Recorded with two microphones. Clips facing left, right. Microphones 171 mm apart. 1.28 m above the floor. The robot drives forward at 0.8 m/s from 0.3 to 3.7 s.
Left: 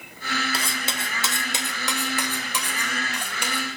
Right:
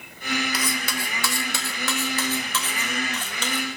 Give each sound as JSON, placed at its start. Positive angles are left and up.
{"t": 0.5, "sound": "cutlery clinking", "side_deg": 30, "distance_m": 1.5}